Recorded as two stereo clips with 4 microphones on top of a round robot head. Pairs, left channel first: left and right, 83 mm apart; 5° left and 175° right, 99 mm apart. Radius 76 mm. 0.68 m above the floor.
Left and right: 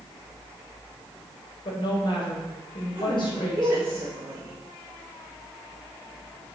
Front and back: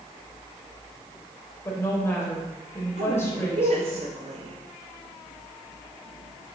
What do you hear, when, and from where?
1.6 s a woman speaking: 70° left, 3.5 m
3.0 s a woman speaking: 155° right, 3.5 m